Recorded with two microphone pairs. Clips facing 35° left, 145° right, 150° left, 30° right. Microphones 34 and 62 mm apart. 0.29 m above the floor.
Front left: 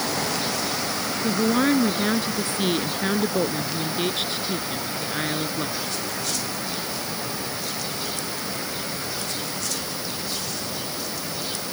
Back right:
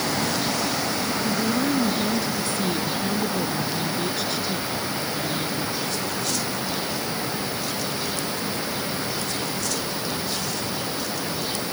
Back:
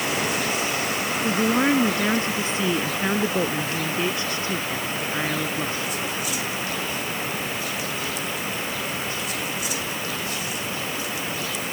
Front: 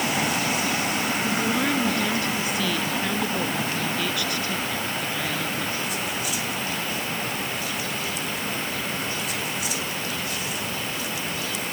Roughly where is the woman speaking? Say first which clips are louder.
Front left 5 dB, back 6 dB; left.